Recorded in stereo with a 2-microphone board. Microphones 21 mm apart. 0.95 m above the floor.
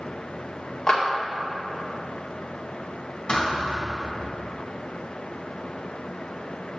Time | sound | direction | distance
0.9 | a clap | 35° left (ahead or behind) | 2 m
3.3 | a thud | 40° left (ahead or behind) | 3.5 m